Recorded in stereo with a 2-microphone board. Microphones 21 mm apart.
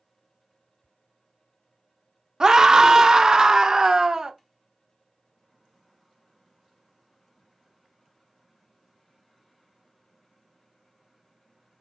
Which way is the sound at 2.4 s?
30° right (ahead or behind).